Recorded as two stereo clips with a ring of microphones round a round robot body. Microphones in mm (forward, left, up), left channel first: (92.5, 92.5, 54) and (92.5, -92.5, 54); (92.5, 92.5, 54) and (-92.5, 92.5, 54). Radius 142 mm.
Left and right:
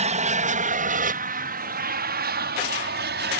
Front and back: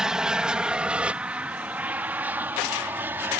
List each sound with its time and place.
0.0 s an aircraft: 95° right; by 3.4 s 100° right